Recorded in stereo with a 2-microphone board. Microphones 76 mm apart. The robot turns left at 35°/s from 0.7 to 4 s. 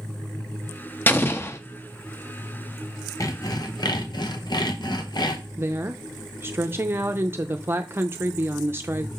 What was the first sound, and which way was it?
An explosion, 25° left (ahead or behind).